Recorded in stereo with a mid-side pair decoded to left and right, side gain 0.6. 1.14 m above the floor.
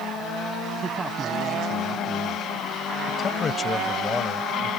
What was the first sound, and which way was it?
A man speaking, 30° right.